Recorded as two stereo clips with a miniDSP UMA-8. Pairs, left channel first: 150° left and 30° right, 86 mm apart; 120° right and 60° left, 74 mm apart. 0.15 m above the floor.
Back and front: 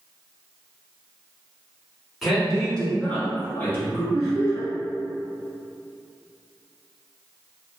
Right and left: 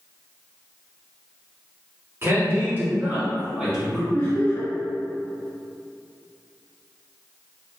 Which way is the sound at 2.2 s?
55° left.